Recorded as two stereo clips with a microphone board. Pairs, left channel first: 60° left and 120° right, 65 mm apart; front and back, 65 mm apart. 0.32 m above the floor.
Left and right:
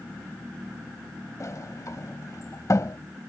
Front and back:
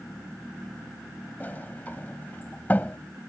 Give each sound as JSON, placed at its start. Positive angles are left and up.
{"t": 1.4, "sound": "a sliding door", "azimuth_deg": 55}